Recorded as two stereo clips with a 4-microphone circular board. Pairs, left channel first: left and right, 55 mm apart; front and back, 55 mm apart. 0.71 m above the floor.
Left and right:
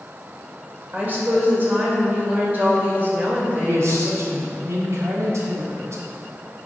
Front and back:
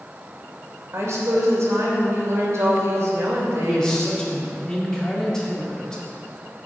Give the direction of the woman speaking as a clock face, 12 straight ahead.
5 o'clock.